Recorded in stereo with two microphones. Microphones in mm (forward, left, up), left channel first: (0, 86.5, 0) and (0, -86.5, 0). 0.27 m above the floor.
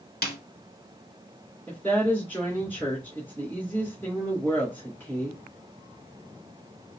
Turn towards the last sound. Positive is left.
turn(degrees=10)  # may be behind; listen again after turning